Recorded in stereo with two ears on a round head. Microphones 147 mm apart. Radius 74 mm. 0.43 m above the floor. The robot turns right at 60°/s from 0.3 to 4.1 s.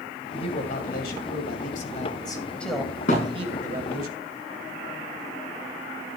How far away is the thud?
About 5 m.